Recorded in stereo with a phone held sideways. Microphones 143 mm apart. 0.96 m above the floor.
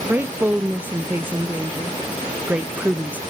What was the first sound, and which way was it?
A woman speaking, 10° right (ahead or behind).